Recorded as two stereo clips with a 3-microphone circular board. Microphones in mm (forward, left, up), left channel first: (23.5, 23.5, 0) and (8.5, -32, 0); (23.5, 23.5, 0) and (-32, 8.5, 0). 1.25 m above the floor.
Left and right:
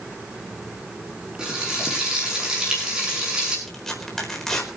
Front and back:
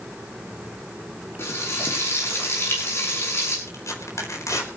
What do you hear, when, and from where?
1.4 s frying: 30° right, 8 m
3.7 s tearing paper: 5° right, 4.5 m